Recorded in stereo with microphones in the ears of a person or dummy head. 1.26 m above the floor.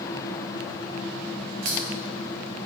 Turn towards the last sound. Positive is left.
turn(degrees=-65)  # may be behind; listen again after turning